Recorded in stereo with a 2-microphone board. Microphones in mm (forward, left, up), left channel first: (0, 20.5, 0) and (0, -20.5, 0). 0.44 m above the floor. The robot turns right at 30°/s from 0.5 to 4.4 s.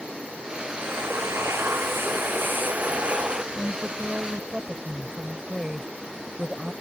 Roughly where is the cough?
I don't hear a cough.